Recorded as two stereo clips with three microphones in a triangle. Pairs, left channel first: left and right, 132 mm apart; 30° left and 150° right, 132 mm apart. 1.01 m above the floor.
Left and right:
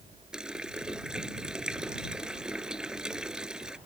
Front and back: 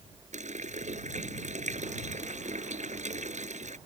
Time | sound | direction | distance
0.3 | a running tap | 175° right | ?